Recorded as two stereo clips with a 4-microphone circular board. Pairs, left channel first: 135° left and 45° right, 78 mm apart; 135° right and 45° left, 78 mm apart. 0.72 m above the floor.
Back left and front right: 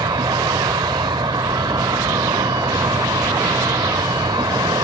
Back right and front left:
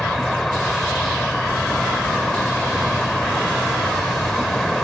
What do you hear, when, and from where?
0.0 s an insect: 50° right